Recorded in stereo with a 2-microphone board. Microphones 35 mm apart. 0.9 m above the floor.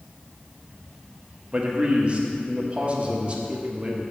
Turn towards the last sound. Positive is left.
turn(degrees=-30)  # may be behind; listen again after turning